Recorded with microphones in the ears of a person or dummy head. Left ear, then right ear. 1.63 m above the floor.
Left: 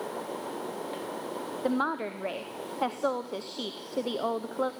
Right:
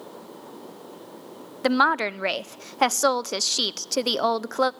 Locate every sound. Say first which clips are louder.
1.6 s a woman speaking: right 10 dB; 65° right (ahead or behind), 0.6 m